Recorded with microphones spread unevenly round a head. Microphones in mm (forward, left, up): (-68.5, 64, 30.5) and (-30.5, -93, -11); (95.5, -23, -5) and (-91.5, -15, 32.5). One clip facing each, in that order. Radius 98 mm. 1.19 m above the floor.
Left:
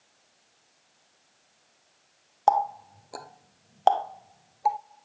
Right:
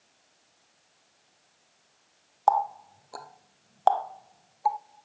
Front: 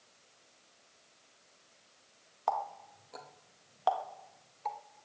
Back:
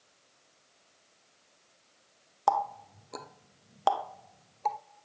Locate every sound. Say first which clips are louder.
2.5 s a running tap: left 1 dB, back 6 dB; 160° left, 0.7 m